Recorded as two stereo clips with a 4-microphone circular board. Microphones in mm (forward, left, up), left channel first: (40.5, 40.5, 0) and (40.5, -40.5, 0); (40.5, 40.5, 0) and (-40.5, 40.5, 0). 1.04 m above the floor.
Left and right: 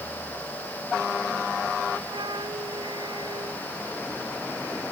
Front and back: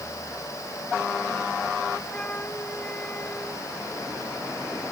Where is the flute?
75° right.